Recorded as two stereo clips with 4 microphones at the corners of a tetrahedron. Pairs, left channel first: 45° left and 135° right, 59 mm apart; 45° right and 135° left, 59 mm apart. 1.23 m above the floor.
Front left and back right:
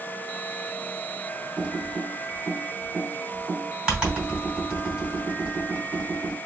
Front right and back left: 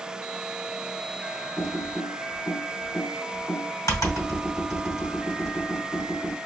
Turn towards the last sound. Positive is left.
turn(degrees=-55)